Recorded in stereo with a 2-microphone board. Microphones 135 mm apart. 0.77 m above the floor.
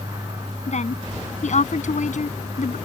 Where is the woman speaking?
60° left (ahead or behind); by 2.8 s 70° left (ahead or behind).